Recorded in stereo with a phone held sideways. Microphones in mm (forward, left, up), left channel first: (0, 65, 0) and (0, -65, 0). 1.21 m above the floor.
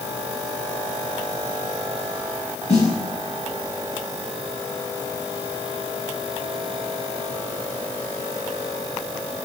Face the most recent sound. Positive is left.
turn(degrees=55)  # may be behind; listen again after turning